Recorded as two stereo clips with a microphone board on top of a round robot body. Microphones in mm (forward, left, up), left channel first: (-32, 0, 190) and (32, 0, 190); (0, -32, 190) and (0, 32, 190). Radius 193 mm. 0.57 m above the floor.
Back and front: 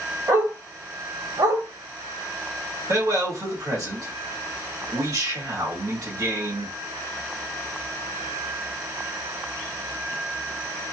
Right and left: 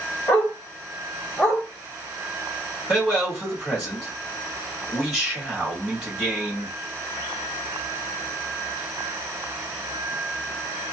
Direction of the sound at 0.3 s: 40° right.